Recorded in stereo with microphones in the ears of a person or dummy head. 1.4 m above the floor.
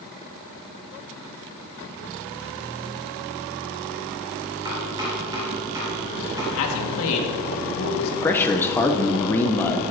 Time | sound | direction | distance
4.7 | chopping | 20° right (ahead or behind) | 3.5 m
6.5 | a man speaking | 75° left (ahead or behind) | 1.7 m
8.2 | a man speaking | 15° left (ahead or behind) | 0.6 m